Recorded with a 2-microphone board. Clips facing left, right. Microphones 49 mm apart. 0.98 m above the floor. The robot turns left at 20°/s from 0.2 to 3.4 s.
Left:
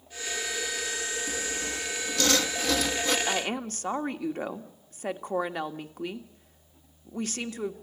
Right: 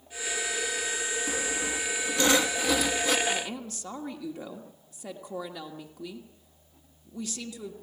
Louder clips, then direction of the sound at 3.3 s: Left 2 dB; 50° left (ahead or behind).